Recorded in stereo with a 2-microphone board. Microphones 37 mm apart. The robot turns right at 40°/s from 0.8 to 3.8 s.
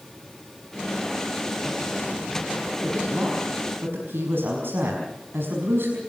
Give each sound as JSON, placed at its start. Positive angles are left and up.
{"t": 2.8, "sound": "a woman speaking", "azimuth_deg": -130, "distance_m": 5.5}